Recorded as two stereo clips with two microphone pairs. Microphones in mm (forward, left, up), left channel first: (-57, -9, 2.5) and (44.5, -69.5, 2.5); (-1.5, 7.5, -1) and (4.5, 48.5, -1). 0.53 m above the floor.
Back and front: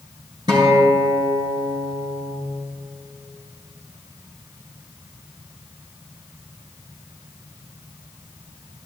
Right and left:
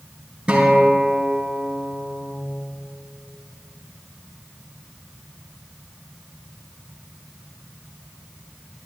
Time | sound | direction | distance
0.5 | a guitar | 20° left | 4 m